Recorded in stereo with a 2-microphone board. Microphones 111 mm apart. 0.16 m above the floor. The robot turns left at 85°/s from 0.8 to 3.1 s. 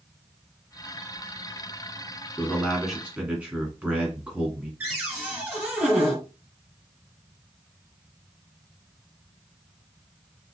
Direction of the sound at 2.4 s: 45° left.